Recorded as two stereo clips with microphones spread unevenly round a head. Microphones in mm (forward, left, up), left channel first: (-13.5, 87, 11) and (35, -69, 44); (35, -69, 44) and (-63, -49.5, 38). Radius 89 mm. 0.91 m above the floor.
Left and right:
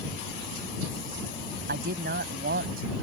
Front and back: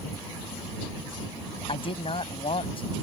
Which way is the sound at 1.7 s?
40° right.